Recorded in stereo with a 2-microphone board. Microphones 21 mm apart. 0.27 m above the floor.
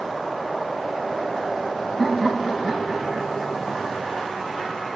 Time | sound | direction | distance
2.0 | laughter | centre (ahead or behind) | 4.5 m